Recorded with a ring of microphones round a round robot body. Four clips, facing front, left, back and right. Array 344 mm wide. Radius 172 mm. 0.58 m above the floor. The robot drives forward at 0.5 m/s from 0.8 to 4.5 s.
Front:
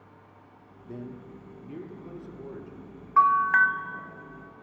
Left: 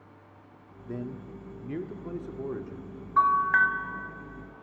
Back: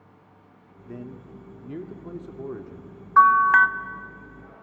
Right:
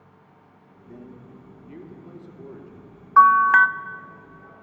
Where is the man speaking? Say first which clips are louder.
Left 6 dB, back 1 dB; 105° left, 1.3 m; by 3.1 s 145° left, 1.8 m.